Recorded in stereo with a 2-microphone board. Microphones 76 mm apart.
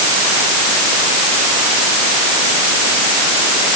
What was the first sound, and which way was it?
Only background noise.